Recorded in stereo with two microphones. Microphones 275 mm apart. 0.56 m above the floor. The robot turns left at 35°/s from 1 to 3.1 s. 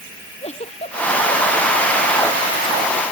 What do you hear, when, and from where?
0.4 s a giggle: 25° left (ahead or behind); by 2.2 s 15° right (ahead or behind)